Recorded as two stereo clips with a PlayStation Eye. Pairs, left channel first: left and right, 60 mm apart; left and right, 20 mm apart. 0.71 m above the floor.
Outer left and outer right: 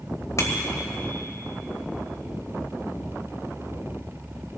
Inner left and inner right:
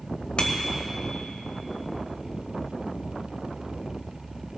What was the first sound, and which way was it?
A bicycle bell, 60° left (ahead or behind).